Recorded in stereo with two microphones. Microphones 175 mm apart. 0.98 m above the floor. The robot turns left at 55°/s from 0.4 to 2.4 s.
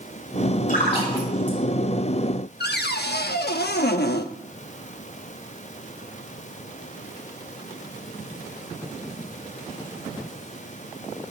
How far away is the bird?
I don't hear a bird.